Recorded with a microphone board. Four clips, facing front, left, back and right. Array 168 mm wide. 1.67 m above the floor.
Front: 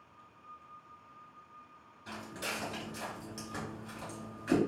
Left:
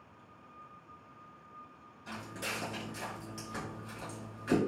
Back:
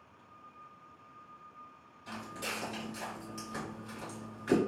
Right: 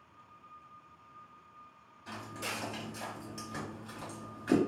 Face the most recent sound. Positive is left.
turn(degrees=-140)